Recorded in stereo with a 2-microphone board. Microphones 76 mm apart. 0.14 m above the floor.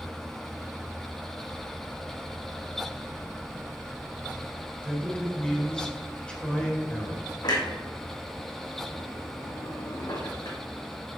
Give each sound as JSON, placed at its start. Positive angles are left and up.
{"t": 4.8, "sound": "a man speaking", "side_deg": 15, "distance_m": 1.5}
{"t": 7.4, "sound": "a clunk", "side_deg": 60, "distance_m": 1.7}